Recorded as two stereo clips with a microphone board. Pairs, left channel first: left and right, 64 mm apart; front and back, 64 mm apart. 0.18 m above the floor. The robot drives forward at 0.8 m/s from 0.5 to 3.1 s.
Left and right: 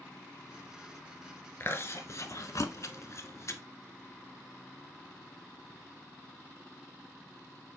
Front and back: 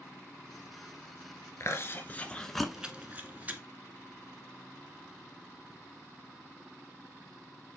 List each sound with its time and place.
1.6 s chewing: 40° left, 1.2 m; by 3.6 s 120° left, 0.9 m